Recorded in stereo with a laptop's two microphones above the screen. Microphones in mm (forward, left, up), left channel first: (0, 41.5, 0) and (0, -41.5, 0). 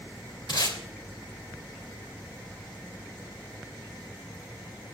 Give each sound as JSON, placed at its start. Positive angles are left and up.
{"t": 0.5, "sound": "tape being pulled", "side_deg": 60, "distance_m": 2.5}